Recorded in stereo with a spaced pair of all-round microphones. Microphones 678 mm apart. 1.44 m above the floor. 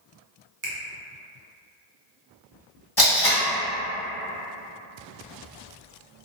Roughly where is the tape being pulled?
Left.